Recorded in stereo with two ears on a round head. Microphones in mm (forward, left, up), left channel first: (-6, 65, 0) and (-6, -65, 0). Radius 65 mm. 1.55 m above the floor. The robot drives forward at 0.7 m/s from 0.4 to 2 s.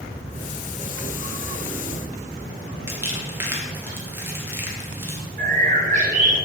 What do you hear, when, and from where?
2.9 s crumpling: 15° right (ahead or behind), 2 m
5.4 s a bird: 55° right (ahead or behind), 2 m